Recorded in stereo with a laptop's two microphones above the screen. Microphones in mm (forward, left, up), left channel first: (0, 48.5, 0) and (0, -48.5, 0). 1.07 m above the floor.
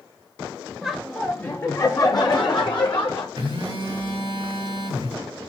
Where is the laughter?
5° right (ahead or behind), 0.8 m; by 3.3 s 60° left (ahead or behind), 1.3 m.